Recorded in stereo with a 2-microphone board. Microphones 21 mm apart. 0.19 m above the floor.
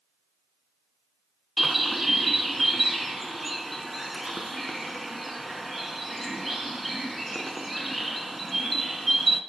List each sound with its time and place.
1.6 s a bird: centre (ahead or behind), 0.6 m